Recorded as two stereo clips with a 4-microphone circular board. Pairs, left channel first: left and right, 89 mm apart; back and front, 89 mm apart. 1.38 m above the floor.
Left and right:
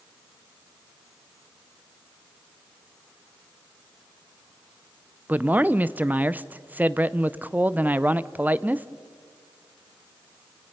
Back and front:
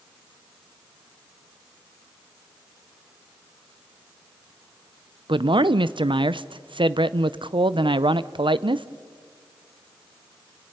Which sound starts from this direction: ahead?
A man speaking, at 5.3 s.